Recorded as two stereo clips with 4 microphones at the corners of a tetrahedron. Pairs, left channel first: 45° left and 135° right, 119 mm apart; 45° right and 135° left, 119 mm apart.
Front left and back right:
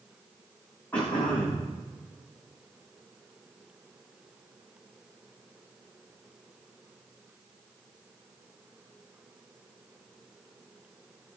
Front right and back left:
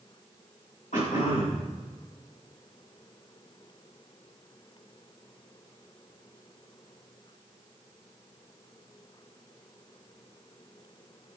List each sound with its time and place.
0.9 s throat clearing: 30° right, 8 m